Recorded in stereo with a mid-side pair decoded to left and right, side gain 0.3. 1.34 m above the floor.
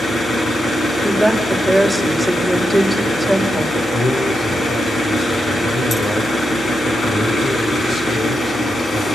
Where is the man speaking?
60° left, 4 m.